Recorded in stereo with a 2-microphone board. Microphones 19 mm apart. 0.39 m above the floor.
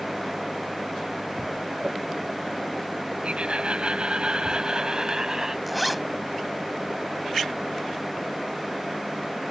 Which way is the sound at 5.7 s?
Centre (ahead or behind).